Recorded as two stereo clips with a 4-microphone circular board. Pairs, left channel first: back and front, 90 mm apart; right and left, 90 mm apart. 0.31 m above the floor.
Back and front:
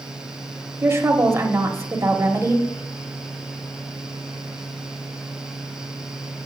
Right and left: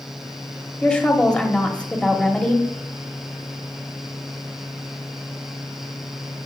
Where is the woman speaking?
25° right, 1.0 m.